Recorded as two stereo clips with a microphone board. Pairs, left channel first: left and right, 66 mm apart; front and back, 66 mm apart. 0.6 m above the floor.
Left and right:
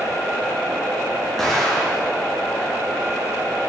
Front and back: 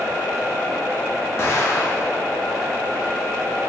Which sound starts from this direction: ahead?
An explosion, at 1.4 s.